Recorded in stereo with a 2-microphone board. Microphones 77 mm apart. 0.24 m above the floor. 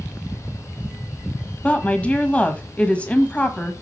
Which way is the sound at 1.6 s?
15° left (ahead or behind).